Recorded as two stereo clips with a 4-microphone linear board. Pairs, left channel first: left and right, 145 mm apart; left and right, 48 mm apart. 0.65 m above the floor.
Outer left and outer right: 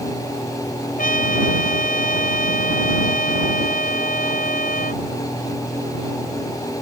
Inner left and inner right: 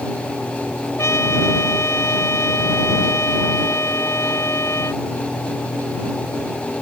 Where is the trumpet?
70° left (ahead or behind).